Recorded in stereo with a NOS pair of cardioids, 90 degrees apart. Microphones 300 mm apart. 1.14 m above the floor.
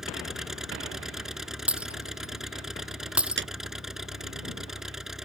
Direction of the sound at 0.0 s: Straight ahead.